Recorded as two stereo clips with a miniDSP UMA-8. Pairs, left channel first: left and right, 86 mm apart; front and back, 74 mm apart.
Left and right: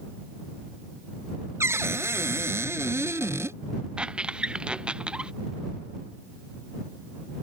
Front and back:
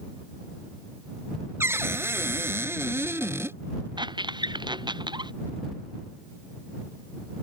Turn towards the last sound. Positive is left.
turn(degrees=-170)